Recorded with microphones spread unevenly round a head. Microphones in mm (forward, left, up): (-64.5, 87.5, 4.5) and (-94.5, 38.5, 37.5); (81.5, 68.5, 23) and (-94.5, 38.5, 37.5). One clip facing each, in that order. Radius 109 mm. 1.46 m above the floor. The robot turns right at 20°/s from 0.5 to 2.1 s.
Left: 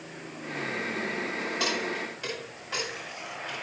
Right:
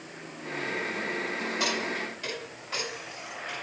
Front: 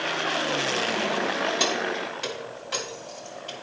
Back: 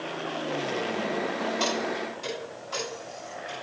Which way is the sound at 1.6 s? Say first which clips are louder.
Even, front 1 dB; 45° right.